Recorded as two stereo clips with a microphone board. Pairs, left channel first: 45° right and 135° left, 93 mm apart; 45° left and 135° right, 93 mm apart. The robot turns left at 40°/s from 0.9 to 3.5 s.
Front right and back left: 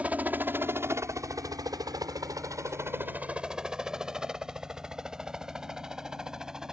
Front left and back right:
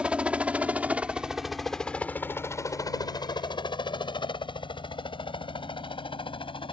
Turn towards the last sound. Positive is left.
turn(degrees=55)